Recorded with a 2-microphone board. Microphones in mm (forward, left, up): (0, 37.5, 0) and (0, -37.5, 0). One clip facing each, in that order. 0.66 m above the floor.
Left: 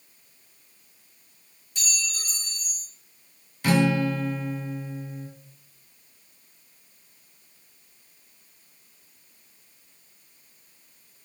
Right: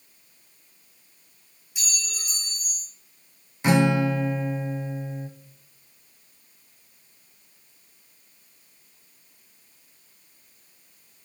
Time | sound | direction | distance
1.8 | a clink | 10° right (ahead or behind) | 4 m
3.6 | a guitar | 20° right (ahead or behind) | 0.6 m